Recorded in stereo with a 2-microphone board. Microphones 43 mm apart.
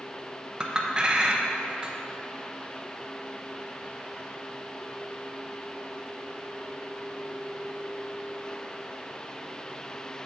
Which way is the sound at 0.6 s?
20° right (ahead or behind).